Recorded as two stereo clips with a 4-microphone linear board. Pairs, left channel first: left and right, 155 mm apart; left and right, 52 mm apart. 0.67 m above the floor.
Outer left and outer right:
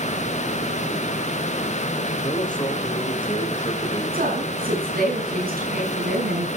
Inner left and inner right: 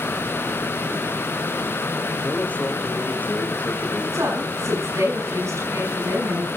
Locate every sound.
2.2 s a man speaking: 30° left (ahead or behind), 3.5 m
4.1 s a woman speaking: 75° right (ahead or behind), 6 m